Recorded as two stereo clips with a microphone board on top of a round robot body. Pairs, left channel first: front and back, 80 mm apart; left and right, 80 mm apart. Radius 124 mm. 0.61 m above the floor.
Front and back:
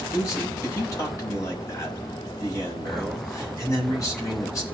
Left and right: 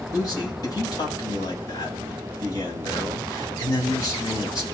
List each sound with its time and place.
0.1 s a man speaking: 50° left, 6 m